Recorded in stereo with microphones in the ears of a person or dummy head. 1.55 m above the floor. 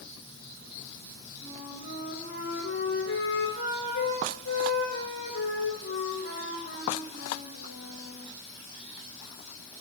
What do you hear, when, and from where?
1.4 s a flute: 85° left, 5.5 m